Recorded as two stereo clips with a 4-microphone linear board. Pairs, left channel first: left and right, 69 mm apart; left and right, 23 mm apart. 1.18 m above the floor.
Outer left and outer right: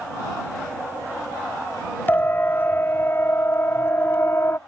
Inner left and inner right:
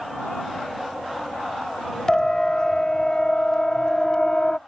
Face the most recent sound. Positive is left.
turn(degrees=35)  # may be behind; listen again after turning